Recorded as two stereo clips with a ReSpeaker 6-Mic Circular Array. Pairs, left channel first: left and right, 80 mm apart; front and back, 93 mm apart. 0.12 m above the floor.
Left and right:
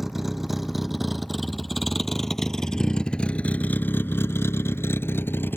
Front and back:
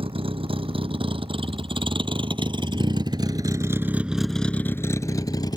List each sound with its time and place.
0.0 s a vehicle: 175° right; by 5.6 s 30° left